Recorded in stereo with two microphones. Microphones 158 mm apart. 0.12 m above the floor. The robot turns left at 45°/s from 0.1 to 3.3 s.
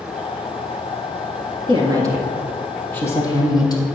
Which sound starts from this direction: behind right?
A woman speaking, at 1.7 s.